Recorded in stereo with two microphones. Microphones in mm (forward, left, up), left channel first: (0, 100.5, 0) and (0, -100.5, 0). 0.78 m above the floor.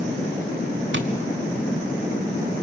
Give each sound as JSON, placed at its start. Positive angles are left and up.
{"t": 0.9, "sound": "tapping", "side_deg": -70, "distance_m": 1.5}